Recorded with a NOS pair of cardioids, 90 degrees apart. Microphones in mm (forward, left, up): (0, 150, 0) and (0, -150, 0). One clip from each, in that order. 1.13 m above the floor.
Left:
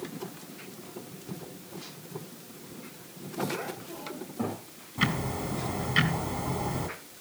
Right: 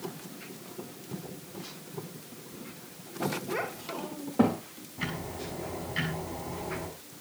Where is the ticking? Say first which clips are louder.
Left 7 dB; 60° left, 3.5 m.